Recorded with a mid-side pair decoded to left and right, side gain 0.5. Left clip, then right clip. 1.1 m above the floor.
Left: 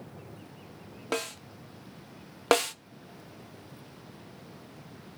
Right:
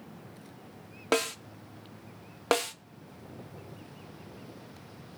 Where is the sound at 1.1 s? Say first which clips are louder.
Right 5 dB; 35° right, 1.7 m.